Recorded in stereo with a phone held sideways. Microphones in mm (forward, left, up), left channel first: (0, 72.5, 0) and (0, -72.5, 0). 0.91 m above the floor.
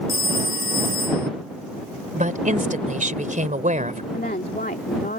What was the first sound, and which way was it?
A phone ringing, 80° left.